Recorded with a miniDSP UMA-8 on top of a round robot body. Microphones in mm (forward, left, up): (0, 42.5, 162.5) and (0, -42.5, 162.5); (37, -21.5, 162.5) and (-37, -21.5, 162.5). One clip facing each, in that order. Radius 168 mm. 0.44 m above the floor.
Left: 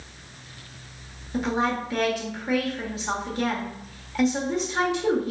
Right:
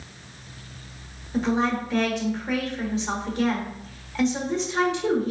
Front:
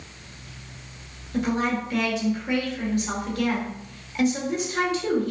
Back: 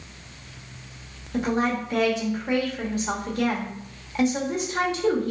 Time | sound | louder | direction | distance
1.3 | a woman speaking | right 2 dB, even | 165° left | 1.2 m